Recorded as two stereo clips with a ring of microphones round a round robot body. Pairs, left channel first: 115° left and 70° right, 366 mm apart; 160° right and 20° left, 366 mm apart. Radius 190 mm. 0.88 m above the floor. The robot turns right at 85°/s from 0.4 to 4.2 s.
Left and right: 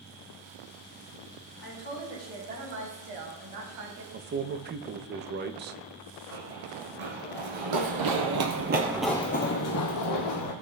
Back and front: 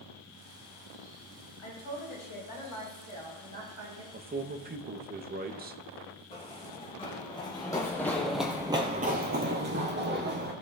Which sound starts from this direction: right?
Running footsteps, at 6.3 s.